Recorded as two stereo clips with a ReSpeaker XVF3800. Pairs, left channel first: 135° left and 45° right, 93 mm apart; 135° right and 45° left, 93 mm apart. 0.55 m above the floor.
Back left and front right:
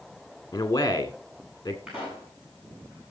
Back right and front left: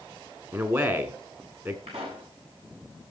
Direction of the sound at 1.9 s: 35° left.